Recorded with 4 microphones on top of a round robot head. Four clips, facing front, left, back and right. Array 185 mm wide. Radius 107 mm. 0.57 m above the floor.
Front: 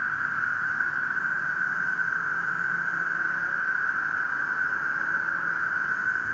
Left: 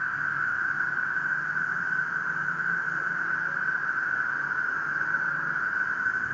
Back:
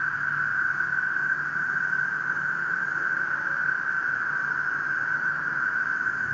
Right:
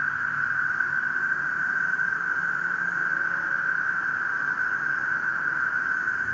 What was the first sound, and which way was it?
An insect, 120° right.